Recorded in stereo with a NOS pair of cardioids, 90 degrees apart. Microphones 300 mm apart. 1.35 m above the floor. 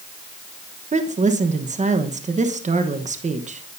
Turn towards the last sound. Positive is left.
turn(degrees=-25)